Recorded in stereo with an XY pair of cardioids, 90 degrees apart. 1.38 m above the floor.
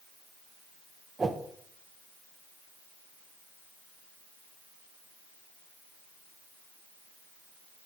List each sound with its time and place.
1.2 s a whoosh: 30° right, 0.8 m